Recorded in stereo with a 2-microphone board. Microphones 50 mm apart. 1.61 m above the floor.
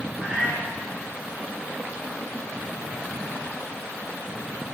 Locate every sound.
0.2 s a cat meowing: 25° right (ahead or behind), 1.9 m